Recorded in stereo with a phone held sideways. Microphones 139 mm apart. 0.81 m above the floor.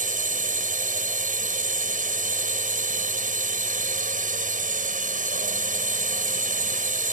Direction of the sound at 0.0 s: 70° right (ahead or behind).